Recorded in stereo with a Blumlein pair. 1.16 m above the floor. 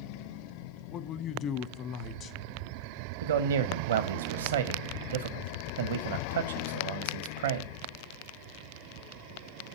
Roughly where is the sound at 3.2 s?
Ahead right.